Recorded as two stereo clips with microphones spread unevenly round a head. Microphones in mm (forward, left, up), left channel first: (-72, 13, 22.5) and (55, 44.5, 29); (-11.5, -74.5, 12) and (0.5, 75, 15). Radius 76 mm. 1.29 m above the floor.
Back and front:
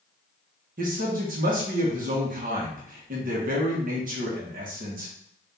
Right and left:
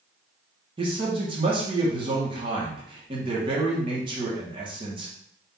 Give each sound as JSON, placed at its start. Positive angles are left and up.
{"t": 0.8, "sound": "a man speaking", "azimuth_deg": 25, "distance_m": 1.4}